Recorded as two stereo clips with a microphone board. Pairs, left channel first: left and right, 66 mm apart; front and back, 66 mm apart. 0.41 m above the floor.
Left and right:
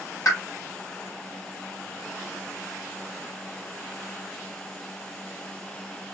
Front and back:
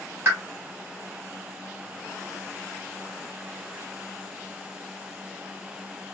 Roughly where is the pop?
Behind left.